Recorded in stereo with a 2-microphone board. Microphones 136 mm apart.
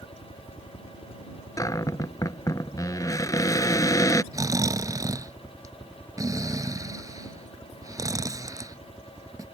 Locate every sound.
0.0 s a helicopter: 35° left (ahead or behind); by 9.6 s centre (ahead or behind)
1.6 s a cupboard door: 25° left (ahead or behind)
4.3 s snoring: 25° right (ahead or behind)